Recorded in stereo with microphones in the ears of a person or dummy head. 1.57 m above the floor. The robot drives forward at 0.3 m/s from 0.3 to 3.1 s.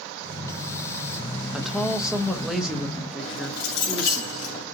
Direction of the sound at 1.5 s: 5° right (ahead or behind).